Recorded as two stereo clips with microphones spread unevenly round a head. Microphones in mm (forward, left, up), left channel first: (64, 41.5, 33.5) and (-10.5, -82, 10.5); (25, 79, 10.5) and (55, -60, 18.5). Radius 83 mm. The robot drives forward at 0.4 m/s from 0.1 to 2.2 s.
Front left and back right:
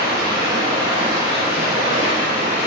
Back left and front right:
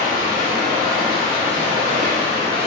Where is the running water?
55° right, 2 m; by 2.7 s 80° right, 1.8 m.